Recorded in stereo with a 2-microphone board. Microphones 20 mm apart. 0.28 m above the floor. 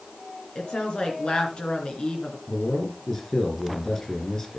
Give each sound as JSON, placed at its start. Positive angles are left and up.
{"t": 0.6, "sound": "a woman speaking", "side_deg": 70, "distance_m": 3.0}
{"t": 2.5, "sound": "a man speaking", "side_deg": 25, "distance_m": 5.0}